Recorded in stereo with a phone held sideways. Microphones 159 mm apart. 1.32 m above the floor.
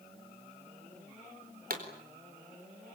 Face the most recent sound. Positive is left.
turn(degrees=-65)  # may be behind; listen again after turning